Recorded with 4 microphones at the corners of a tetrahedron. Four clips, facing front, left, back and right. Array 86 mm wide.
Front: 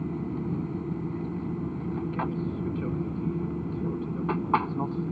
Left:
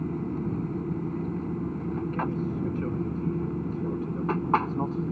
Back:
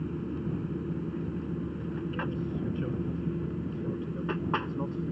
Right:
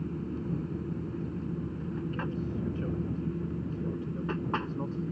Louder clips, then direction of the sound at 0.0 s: Left 5 dB, front 2 dB; 65° left.